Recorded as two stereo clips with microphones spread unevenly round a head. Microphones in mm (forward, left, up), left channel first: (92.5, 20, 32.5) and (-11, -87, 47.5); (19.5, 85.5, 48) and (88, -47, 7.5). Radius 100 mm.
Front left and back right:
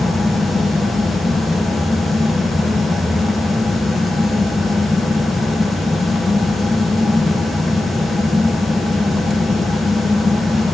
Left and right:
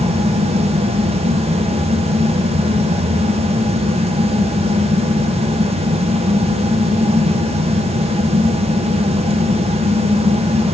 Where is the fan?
40° right, 0.9 m.